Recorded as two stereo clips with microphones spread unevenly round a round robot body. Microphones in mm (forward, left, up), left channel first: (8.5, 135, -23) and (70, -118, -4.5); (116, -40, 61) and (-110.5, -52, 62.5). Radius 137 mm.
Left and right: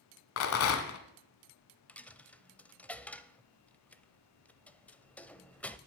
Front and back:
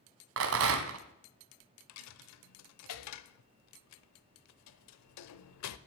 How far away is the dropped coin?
About 0.5 m.